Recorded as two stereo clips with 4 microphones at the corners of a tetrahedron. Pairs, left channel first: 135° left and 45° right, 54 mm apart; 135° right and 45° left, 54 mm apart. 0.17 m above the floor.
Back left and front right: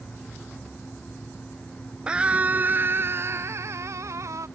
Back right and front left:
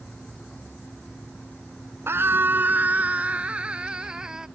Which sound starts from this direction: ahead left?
A scream, at 2.1 s.